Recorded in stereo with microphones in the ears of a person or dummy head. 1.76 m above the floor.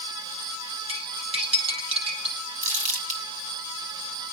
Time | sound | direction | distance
0.9 | cutlery clinking | 35° right (ahead or behind) | 7 m
2.6 | crumpling | 45° right (ahead or behind) | 4.5 m